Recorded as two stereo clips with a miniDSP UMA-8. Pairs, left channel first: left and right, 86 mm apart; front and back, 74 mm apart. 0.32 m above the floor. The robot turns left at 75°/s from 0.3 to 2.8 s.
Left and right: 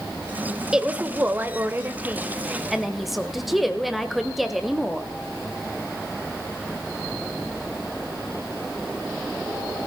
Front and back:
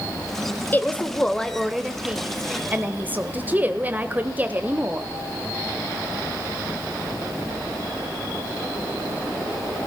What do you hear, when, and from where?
0.7 s a woman speaking: 20° right, 0.9 m; by 5.1 s 175° right, 0.9 m